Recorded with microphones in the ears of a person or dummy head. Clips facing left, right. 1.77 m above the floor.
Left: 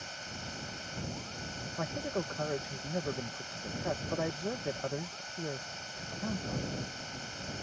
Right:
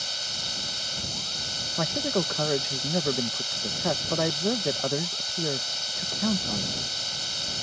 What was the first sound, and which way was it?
A machine running, 55° right (ahead or behind).